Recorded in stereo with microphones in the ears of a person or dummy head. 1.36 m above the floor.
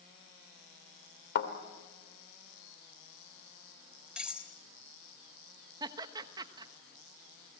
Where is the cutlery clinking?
5° right (ahead or behind), 3 m.